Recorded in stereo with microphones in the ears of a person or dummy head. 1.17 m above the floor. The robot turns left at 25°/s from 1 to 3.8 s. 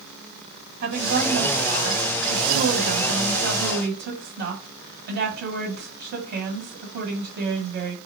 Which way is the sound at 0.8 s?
50° right.